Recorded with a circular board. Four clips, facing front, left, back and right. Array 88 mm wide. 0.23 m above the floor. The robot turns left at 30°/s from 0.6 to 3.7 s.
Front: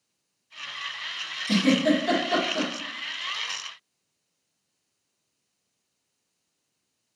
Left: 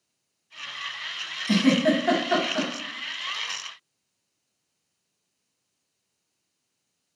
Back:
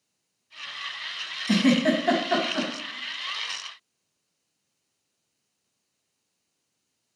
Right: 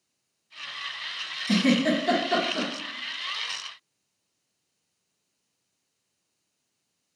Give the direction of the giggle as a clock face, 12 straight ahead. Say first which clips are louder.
Left 2 dB, even; 7 o'clock.